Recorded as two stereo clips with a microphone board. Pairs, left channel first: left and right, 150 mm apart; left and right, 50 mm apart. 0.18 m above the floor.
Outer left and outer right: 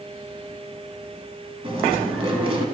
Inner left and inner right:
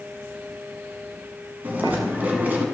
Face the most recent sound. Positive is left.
turn(degrees=-40)  # may be behind; listen again after turning